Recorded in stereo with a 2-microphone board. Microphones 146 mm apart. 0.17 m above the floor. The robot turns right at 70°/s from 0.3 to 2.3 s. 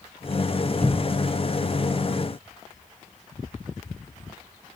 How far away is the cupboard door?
About 1.0 m.